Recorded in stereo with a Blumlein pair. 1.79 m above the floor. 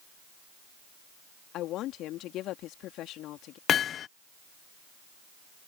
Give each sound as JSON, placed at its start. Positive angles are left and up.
{"t": 1.5, "sound": "a woman speaking", "azimuth_deg": 35}
{"t": 3.7, "sound": "hammering", "azimuth_deg": 25}